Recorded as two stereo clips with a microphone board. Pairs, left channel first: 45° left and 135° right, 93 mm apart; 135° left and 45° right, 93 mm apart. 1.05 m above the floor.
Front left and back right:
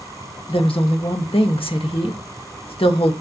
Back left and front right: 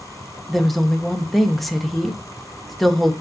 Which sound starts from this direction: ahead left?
A woman speaking, at 0.5 s.